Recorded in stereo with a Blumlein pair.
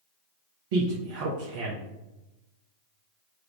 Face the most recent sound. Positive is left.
turn(degrees=-50)